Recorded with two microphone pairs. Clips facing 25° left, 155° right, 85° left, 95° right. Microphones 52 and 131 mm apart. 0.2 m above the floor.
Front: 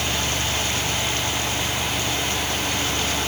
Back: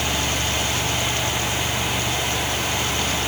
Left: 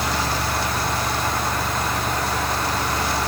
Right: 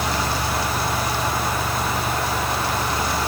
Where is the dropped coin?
I don't hear a dropped coin.